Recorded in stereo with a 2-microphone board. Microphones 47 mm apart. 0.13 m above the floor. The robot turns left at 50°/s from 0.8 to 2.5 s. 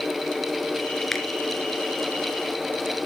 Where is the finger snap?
5° left (ahead or behind), 1.6 m; by 1.2 s centre (ahead or behind), 1.6 m.